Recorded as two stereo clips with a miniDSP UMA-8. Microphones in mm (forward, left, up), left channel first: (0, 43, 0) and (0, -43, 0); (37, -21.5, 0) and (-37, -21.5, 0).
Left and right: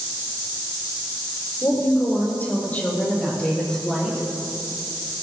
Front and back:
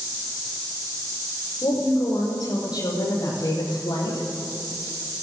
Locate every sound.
1.6 s a woman speaking: 35° left, 5.5 m; by 4.3 s 5° left, 7 m